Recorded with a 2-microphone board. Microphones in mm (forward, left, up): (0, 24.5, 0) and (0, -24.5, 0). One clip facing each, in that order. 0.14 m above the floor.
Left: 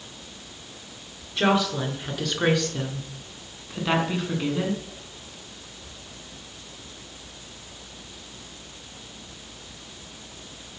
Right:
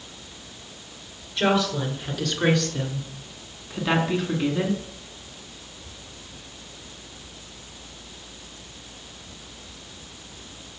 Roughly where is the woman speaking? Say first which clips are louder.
Even; centre.